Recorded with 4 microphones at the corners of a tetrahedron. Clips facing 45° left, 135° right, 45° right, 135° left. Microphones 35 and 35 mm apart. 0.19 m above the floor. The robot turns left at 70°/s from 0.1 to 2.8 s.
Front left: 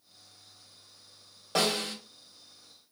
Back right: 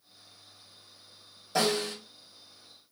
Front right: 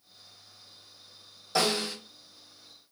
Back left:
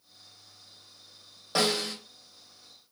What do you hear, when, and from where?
1.6 s a snare drum: 80° left, 2.5 m; by 1.9 s 50° left, 2.5 m